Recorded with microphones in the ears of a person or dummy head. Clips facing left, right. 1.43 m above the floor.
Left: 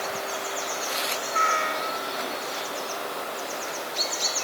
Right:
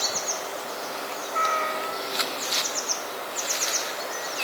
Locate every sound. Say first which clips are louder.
1.3 s a cat meowing: right 1 dB; 15° left (ahead or behind)